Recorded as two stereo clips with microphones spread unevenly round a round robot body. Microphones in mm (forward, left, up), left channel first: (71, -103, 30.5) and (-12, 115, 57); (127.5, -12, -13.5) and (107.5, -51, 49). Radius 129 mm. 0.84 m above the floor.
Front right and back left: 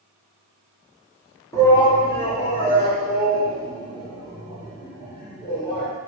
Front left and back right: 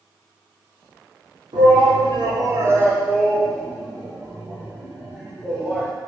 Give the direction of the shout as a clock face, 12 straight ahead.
4 o'clock.